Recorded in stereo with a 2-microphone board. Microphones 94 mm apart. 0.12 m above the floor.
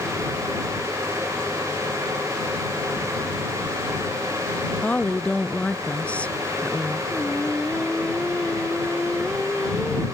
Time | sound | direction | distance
4.8 | a woman speaking | 15° left (ahead or behind) | ?
7.1 | singing | 10° left (ahead or behind) | ?